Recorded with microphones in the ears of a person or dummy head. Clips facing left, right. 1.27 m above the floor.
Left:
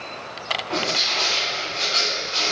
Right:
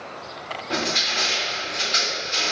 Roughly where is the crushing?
Right.